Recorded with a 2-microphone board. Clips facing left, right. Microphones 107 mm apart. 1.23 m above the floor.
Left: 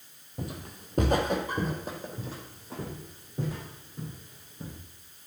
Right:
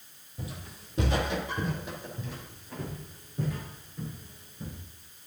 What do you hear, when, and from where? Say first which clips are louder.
0.4 s footsteps: left 4 dB; 50° left (ahead or behind), 1.9 m; by 4.8 s 25° left (ahead or behind), 5 m